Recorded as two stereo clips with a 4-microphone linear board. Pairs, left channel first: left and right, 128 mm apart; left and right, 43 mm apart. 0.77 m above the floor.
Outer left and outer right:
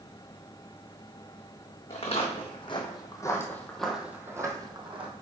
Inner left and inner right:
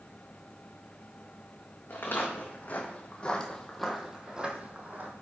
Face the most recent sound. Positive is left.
turn(degrees=-45)  # may be behind; listen again after turning